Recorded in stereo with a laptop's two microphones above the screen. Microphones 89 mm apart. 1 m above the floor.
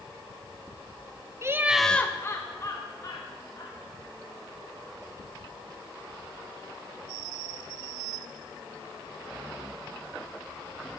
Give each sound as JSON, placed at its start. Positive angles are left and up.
{"t": 1.4, "sound": "laughter", "side_deg": -30, "distance_m": 0.7}